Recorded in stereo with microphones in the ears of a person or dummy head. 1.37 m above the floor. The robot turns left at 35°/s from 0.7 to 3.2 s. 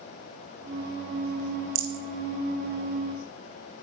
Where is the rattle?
45° right (ahead or behind), 1.1 m; by 2.0 s 35° right (ahead or behind), 1.1 m.